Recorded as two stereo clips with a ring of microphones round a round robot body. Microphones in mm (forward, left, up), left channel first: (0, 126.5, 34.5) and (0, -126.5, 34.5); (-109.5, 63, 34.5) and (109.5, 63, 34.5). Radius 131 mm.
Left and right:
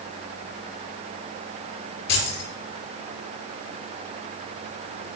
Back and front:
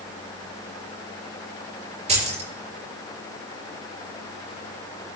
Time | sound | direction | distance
2.1 | keys jangling | 60° left | 5.5 m